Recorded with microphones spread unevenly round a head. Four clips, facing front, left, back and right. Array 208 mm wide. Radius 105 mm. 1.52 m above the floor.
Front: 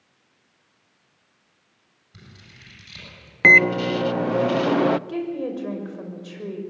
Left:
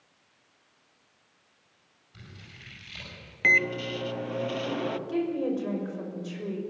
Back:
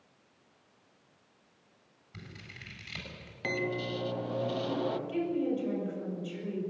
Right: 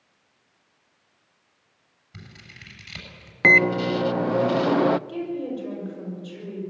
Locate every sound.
2.1 s scissors: 90° right, 8 m
3.4 s a microwave: 35° right, 0.6 m
5.1 s a woman speaking: 10° left, 6 m